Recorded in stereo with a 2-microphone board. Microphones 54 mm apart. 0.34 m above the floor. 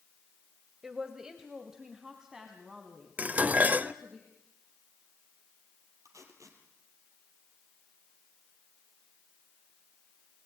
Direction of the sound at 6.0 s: 75° right (ahead or behind).